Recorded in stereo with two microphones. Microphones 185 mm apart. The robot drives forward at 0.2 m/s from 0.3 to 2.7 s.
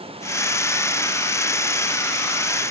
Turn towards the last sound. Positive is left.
No sound to turn to.